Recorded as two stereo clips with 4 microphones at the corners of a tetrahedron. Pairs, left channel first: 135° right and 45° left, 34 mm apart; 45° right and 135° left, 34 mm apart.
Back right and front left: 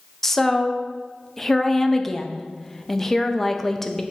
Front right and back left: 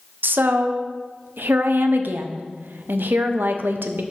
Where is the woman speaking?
145° left, 0.7 m.